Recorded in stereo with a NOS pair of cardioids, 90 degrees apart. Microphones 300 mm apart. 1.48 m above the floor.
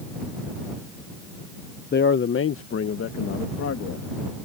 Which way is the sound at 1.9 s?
35° left.